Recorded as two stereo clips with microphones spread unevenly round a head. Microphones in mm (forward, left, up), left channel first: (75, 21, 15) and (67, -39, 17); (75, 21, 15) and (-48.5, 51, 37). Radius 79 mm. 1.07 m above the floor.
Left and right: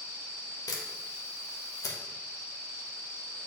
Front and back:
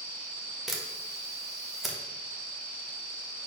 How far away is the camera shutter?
About 1.4 m.